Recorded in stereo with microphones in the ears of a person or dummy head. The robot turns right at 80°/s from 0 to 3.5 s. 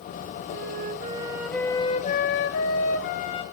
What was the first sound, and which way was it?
A flute, 80° right.